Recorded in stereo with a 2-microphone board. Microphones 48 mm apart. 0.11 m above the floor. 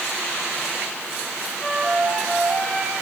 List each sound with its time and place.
1.6 s a flute: 20° left (ahead or behind), 8.5 m